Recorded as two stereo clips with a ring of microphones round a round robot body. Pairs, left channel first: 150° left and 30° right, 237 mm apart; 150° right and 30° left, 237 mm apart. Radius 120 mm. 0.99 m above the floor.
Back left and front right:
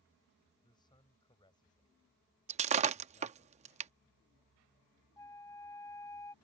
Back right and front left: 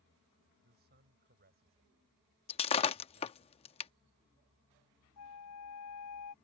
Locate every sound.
0.6 s a man speaking: 80° left
2.5 s breaking glass: 90° right
5.2 s a flute: 135° right